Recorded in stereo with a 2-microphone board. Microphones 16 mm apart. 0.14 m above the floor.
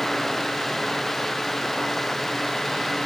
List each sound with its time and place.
Only background noise.